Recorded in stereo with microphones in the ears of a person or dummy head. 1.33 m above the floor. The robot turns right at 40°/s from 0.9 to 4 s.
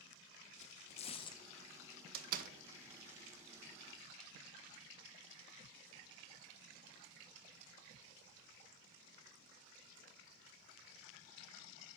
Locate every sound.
0.6 s tearing paper: 30° left (ahead or behind), 0.5 m; by 1.4 s 15° left (ahead or behind), 0.5 m
2.1 s a door slam: 60° right (ahead or behind), 0.7 m; by 2.5 s 45° right (ahead or behind), 0.7 m